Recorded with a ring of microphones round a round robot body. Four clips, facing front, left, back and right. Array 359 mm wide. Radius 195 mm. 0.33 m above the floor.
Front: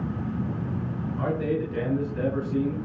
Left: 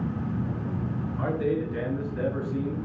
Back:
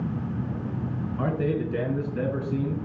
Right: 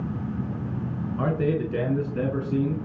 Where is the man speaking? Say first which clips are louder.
Right 2 dB, even; 120° right, 5.5 m; by 2.8 s 110° right, 5 m.